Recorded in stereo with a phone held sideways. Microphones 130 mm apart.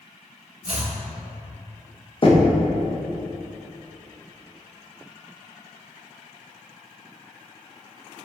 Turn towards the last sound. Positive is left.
turn(degrees=40)  # may be behind; listen again after turning